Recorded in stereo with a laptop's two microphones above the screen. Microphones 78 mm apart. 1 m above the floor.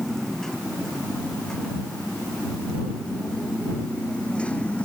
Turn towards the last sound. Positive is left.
turn(degrees=15)  # may be behind; listen again after turning